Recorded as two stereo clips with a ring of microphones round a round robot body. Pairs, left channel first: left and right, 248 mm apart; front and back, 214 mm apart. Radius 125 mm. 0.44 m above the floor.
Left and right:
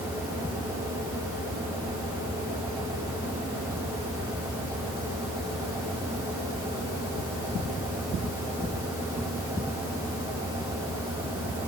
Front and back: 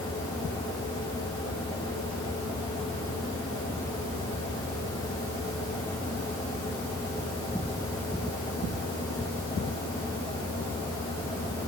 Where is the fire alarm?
I don't hear a fire alarm.